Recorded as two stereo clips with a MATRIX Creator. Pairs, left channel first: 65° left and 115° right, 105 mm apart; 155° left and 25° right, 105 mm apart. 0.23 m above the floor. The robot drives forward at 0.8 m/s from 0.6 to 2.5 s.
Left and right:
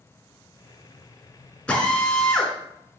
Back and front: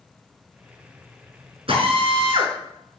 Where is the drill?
10° right, 3.5 m.